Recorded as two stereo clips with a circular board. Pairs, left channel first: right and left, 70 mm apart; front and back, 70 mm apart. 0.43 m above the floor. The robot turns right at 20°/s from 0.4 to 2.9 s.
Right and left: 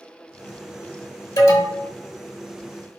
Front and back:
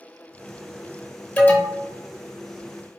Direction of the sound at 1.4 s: 65° right.